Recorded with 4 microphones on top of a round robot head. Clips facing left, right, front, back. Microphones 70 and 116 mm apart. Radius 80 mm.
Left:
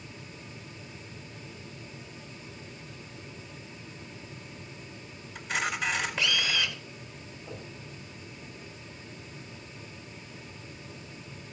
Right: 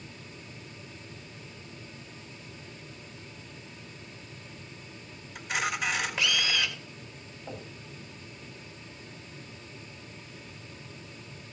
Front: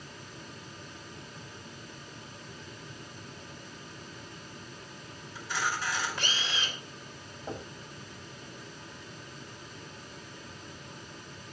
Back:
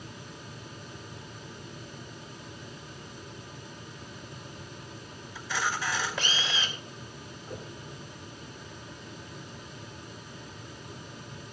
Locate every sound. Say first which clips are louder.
5.3 s a camera shutter: even, back 1 dB; 175° right, 5 m
7.5 s knocking: right 2 dB, front 3 dB; 35° right, 5 m